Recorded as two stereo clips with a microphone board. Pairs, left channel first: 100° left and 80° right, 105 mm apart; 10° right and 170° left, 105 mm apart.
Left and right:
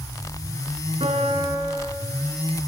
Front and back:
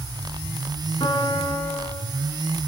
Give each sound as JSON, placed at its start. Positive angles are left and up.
{"t": 1.0, "sound": "a piano", "azimuth_deg": -55, "distance_m": 4.5}